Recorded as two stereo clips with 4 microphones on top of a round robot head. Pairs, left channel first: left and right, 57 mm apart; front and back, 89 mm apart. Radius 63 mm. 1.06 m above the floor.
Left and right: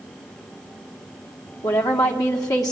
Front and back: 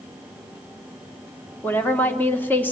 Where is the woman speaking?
65° left, 2 m.